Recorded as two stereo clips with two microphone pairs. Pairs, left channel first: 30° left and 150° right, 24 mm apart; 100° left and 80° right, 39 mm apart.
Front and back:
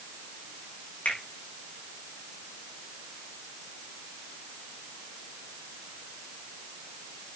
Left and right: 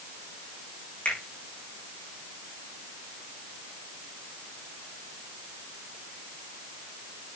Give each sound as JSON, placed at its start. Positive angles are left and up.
{"t": 1.1, "sound": "a finger snap", "azimuth_deg": 40, "distance_m": 9.5}